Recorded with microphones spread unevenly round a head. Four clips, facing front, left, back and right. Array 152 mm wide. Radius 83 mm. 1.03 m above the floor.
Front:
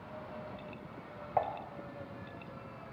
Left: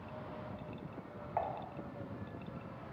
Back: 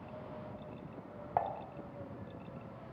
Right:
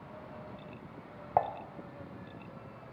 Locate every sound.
1.4 s dishes clattering: 110° right, 0.8 m